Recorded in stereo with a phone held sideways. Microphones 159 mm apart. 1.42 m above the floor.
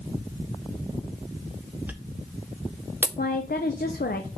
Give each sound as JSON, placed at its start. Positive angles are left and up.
{"t": 1.9, "sound": "a dropped coin", "side_deg": -10, "distance_m": 0.8}
{"t": 3.2, "sound": "a woman speaking", "side_deg": 75, "distance_m": 0.6}